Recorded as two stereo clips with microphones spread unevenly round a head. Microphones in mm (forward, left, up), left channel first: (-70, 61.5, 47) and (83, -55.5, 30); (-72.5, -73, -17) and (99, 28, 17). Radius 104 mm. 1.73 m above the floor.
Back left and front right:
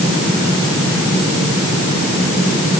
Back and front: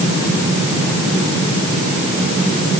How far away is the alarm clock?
I don't hear an alarm clock.